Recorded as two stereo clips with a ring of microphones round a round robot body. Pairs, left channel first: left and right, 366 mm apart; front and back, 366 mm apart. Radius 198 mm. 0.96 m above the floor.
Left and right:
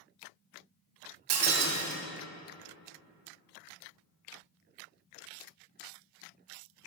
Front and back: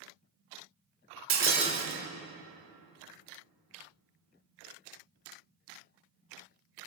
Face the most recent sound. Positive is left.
turn(degrees=-125)